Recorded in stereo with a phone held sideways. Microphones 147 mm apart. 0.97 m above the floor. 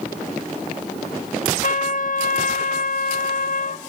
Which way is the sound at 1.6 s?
65° left (ahead or behind).